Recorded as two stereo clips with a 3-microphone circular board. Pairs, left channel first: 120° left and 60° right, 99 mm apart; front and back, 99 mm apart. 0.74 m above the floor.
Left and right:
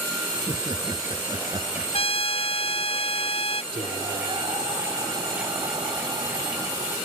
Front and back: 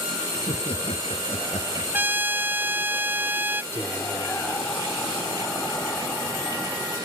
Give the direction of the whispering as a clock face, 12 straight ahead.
2 o'clock.